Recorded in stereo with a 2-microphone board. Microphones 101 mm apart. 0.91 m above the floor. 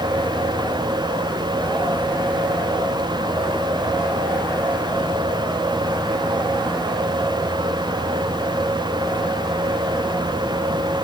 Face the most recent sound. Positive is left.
No sound to turn to.